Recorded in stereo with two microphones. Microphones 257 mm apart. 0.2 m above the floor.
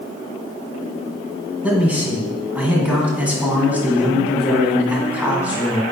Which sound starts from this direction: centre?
A man speaking, at 1.6 s.